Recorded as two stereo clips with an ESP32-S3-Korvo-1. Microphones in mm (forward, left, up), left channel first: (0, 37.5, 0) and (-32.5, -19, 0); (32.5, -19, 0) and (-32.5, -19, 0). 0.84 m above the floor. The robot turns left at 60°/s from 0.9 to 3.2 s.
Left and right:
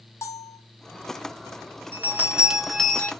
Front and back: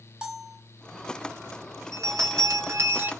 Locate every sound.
0.2 s a bell: 105° left, 0.6 m
1.9 s a bell: 165° right, 0.8 m; by 3.1 s 125° left, 0.8 m